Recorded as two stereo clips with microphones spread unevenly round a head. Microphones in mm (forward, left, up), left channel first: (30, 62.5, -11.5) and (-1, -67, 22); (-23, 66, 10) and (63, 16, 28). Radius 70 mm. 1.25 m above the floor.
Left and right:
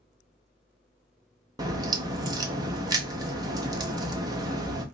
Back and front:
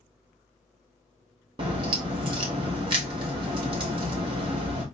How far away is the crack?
About 0.7 m.